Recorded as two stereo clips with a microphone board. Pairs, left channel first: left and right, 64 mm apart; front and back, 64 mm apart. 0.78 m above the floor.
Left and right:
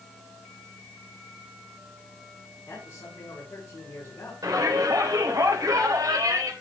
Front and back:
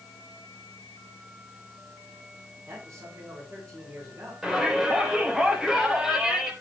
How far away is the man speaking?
About 7.5 m.